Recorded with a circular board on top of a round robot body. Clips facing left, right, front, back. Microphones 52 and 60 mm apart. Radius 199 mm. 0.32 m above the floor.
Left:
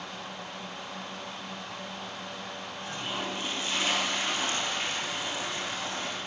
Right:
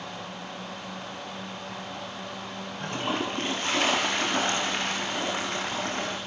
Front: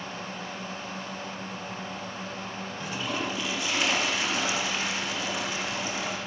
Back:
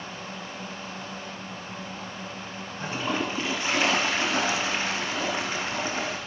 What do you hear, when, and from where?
2.8 s a toilet flushing: 125° right, 7 m